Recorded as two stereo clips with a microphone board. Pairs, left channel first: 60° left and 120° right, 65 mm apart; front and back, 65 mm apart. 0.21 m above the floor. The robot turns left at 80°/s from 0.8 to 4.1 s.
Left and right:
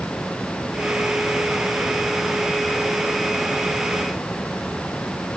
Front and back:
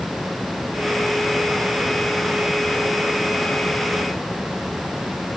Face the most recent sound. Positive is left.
No sound to turn to.